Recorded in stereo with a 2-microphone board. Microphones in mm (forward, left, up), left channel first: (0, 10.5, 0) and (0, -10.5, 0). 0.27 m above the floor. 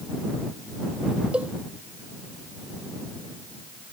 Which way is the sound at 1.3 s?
80° right.